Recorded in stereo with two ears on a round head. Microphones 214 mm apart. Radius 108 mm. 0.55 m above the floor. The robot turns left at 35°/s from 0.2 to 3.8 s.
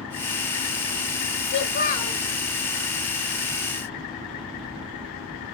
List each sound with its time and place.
1.4 s a child speaking: 50° left (ahead or behind), 1.3 m; by 2.2 s 25° left (ahead or behind), 1.3 m